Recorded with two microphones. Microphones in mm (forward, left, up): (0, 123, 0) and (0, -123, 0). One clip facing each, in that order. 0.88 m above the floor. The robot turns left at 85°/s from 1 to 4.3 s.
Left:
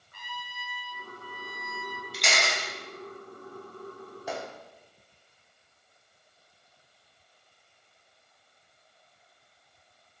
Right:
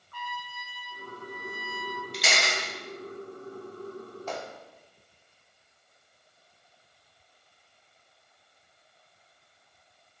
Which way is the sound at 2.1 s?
5° left (ahead or behind).